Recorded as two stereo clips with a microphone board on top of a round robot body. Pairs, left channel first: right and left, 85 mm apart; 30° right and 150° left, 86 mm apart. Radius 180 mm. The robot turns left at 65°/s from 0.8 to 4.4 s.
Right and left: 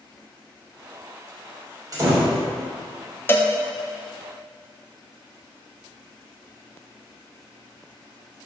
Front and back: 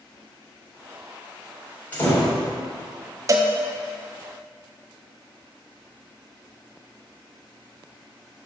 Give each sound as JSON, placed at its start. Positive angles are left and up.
{"t": 1.9, "sound": "a door slam", "azimuth_deg": 40, "distance_m": 2.5}
{"t": 3.3, "sound": "a cowbell", "azimuth_deg": -155, "distance_m": 0.7}